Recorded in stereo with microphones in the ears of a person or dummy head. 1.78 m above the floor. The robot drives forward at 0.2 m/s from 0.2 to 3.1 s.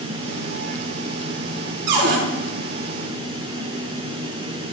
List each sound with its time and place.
1.9 s a cupboard door: 70° right (ahead or behind), 2.5 m